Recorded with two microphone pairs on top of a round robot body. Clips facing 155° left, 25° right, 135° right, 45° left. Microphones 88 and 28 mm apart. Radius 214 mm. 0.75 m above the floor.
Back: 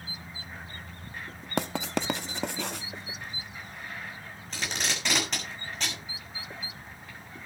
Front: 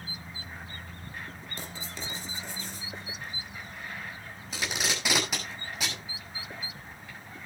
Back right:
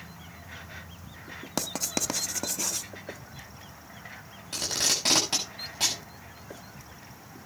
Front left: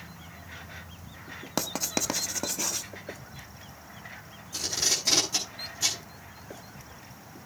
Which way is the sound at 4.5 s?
110° right.